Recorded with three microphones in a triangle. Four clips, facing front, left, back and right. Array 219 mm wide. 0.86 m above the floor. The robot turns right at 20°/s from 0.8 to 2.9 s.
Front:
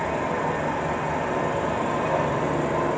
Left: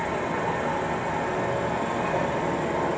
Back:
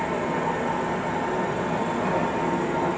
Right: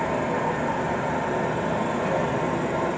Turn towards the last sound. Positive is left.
turn(degrees=-10)